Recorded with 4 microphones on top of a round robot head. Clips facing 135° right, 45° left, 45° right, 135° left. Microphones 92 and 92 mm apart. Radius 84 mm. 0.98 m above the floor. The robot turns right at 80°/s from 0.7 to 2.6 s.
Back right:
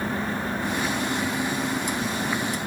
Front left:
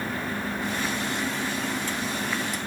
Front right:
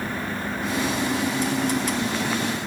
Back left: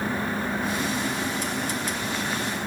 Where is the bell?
No bell in this recording.